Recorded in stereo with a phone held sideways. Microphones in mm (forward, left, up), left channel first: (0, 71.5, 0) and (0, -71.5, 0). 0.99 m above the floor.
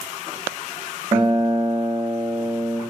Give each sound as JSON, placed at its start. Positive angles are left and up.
{"t": 1.1, "sound": "a guitar", "side_deg": -50, "distance_m": 1.2}